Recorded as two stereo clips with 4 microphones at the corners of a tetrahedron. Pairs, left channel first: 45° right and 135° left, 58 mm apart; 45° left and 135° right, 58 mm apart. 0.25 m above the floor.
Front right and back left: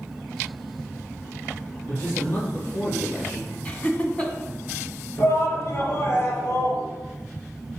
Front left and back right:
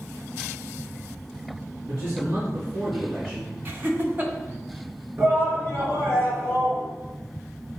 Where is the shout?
85° right, 3.5 m.